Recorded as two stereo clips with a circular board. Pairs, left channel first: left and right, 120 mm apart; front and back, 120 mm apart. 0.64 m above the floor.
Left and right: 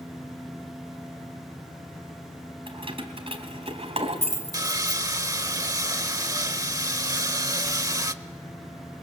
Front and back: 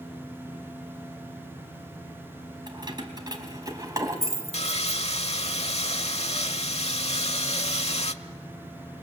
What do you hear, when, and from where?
2.7 s keys jangling: 130° right, 3.5 m; by 5.0 s 115° right, 3 m
4.5 s sawing: 30° right, 1.1 m